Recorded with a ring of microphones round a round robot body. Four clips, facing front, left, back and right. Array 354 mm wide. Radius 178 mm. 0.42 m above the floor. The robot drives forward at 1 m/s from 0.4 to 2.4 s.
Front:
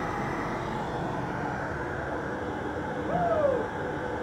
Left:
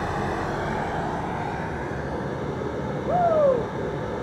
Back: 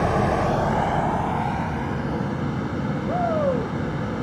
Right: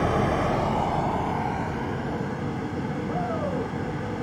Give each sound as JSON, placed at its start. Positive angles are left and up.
{"t": 0.0, "sound": "running water", "azimuth_deg": -160, "distance_m": 0.9}
{"t": 3.1, "sound": "a shout", "azimuth_deg": 105, "distance_m": 2.5}